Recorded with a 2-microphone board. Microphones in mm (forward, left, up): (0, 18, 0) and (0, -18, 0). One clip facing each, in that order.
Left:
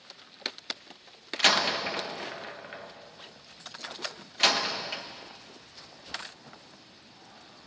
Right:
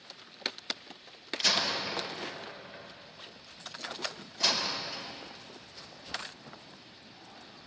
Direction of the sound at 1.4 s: 55° left (ahead or behind).